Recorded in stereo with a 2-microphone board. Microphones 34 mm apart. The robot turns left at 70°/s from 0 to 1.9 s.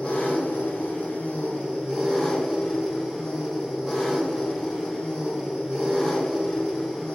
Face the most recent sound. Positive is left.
turn(degrees=10)